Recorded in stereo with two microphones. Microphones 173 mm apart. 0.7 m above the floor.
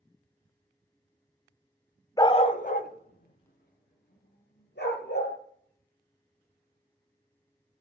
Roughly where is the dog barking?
Left.